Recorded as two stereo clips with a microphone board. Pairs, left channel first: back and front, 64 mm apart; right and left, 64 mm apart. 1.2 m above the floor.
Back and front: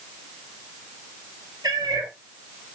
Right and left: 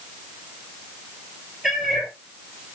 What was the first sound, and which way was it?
A cat meowing, 5° left.